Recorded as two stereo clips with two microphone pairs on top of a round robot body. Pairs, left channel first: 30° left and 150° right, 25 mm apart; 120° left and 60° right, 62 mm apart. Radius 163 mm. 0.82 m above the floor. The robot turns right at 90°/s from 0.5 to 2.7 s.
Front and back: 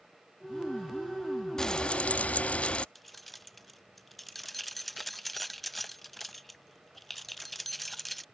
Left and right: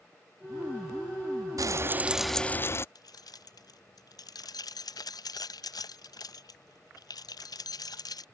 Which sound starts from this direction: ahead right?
Frying, at 1.6 s.